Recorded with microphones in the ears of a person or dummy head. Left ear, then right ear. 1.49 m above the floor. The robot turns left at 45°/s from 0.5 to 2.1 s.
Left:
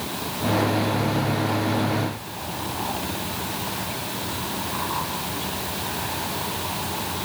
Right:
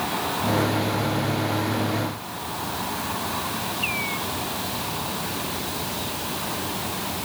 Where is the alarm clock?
I don't hear an alarm clock.